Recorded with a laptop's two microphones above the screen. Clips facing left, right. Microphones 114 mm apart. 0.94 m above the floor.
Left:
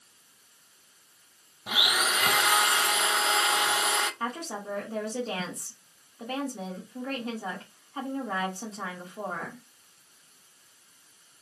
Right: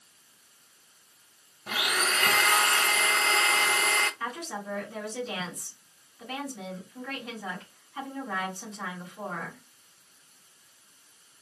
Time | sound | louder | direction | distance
1.7 | a blender | left 1 dB | 10° left (ahead or behind) | 0.7 m
4.2 | a woman speaking | left 2 dB | 35° left (ahead or behind) | 1.4 m